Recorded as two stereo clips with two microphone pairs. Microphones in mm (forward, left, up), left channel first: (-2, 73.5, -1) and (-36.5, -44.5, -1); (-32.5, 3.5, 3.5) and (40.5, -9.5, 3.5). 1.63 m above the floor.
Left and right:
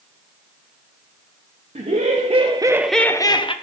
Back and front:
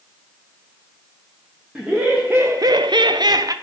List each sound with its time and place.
1.8 s laughter: 90° right, 1.2 m; by 3.5 s 30° left, 0.9 m